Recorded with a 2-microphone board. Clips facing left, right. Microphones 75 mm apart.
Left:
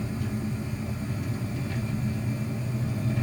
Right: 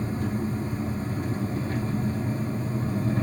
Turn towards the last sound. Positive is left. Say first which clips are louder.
# right 3 dB
turn(degrees=-40)  # may be behind; listen again after turning